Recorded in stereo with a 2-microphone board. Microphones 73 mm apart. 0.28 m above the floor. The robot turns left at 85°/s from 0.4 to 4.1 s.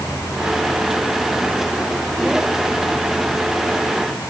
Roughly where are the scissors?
I don't hear scissors.